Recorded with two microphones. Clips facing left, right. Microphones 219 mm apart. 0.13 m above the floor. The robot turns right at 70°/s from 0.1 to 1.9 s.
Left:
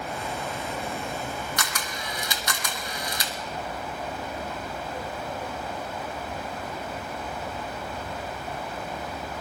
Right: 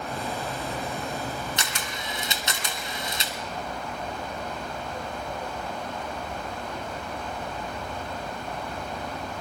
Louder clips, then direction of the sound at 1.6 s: Even; 25° right (ahead or behind).